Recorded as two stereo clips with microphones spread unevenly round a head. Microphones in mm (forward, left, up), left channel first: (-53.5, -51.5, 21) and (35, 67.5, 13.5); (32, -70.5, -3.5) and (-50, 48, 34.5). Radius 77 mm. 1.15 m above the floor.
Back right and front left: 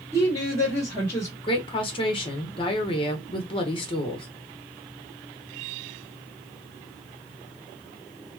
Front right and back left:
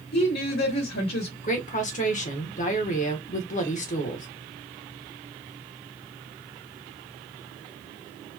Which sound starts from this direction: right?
A woman speaking, at 1.4 s.